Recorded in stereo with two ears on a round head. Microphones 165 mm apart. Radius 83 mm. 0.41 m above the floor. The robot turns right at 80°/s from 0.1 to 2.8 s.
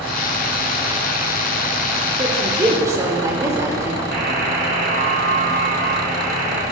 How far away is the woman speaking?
About 0.9 m.